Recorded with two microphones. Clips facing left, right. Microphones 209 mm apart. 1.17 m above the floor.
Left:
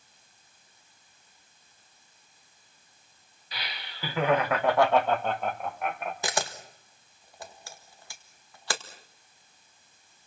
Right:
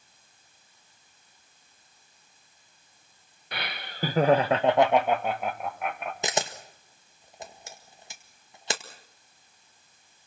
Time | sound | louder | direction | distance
3.5 | laughter | right 5 dB | 65° right (ahead or behind) | 1.4 m
6.2 | a camera shutter | right 4 dB | 20° right (ahead or behind) | 1.8 m